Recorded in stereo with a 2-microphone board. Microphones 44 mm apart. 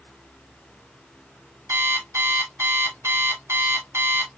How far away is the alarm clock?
About 1.6 m.